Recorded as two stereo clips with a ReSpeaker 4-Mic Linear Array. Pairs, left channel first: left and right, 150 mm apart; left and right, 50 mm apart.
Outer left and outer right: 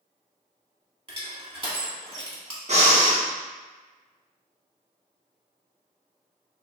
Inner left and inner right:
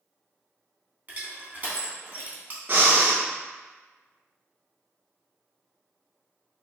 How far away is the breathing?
About 0.6 m.